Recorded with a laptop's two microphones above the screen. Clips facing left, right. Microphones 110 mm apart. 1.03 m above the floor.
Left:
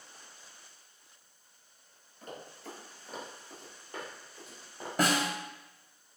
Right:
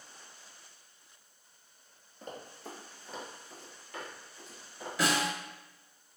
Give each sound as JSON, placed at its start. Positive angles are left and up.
{"t": 2.2, "sound": "running footsteps", "side_deg": -35, "distance_m": 1.1}
{"t": 5.0, "sound": "a snare drum", "side_deg": 50, "distance_m": 0.7}